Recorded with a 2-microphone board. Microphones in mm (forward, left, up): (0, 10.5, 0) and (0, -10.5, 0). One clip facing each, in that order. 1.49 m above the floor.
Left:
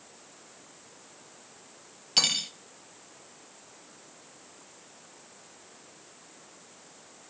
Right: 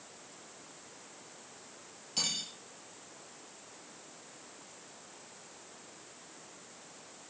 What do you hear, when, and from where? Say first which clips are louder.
2.2 s cutlery clinking: left 9 dB; 50° left (ahead or behind), 1.4 m